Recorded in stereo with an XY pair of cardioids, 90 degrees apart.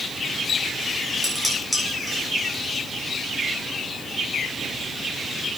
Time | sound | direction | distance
1.2 | dishes clattering | 5° left | 8 m